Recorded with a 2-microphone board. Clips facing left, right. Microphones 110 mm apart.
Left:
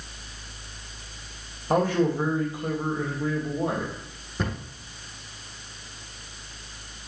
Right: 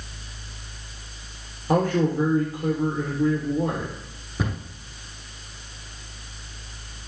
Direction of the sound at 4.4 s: 5° right (ahead or behind).